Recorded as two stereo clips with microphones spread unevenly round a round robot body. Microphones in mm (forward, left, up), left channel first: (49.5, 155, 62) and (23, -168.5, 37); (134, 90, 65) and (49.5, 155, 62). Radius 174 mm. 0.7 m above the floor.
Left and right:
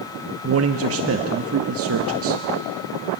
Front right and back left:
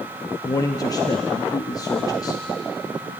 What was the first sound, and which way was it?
A man speaking, 85° right.